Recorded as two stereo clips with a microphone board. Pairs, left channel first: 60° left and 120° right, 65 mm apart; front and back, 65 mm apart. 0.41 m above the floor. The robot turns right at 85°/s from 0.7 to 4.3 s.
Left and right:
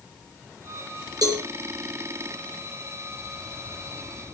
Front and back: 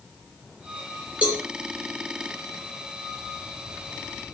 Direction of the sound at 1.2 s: 110° right.